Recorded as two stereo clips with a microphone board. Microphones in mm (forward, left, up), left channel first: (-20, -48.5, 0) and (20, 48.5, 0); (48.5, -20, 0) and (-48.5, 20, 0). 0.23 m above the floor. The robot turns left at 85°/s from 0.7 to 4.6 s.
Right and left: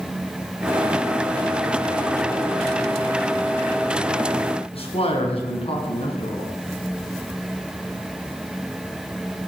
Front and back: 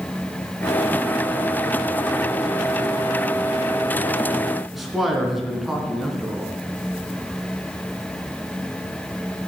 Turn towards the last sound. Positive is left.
turn(degrees=-115)